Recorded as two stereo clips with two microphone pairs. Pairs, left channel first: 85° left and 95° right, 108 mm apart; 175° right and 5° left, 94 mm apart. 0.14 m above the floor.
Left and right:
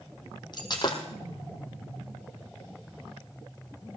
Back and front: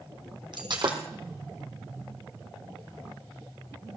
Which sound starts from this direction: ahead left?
Breaking glass, at 0.5 s.